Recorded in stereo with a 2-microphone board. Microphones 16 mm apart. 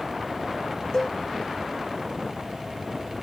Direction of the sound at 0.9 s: 35° left (ahead or behind).